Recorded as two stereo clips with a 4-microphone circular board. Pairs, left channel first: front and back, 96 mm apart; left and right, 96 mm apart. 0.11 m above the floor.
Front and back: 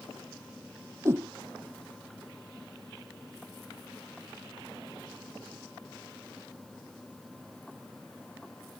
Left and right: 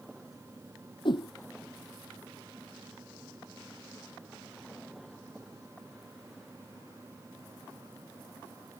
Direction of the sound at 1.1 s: 120° left.